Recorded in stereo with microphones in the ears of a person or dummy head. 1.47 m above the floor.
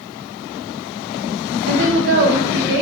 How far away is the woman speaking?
About 0.5 m.